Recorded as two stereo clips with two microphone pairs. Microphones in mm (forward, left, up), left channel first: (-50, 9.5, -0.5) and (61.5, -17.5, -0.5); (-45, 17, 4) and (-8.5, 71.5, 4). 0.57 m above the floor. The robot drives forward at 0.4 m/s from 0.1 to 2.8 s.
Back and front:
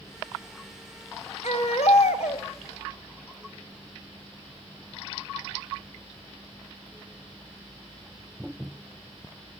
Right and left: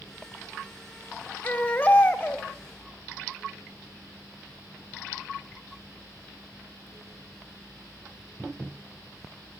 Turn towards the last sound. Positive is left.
turn(degrees=170)